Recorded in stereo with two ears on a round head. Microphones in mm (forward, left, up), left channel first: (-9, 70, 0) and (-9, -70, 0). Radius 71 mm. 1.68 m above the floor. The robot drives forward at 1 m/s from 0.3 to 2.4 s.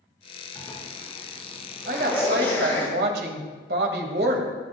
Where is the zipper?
20° left (ahead or behind), 5 m; by 2.9 s 15° left (ahead or behind), 7 m.